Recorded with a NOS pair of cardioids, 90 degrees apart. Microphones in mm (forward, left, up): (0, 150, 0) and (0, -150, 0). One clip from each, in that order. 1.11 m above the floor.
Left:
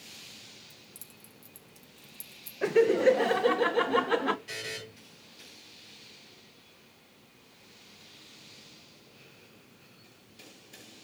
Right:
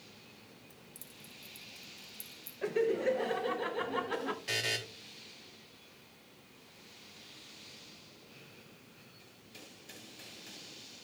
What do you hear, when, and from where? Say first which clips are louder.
0.7 s keys jangling: left 2 dB; 15° left, 1.7 m
2.6 s laughter: left 8 dB; 40° left, 0.6 m
4.5 s a buzzer: right 4 dB; 55° right, 4 m